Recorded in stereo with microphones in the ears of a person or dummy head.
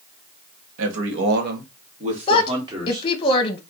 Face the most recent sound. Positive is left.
turn(degrees=25)  # may be behind; listen again after turning